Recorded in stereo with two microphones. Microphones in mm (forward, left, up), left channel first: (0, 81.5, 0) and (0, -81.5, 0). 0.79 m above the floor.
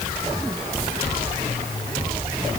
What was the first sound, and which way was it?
Only background noise.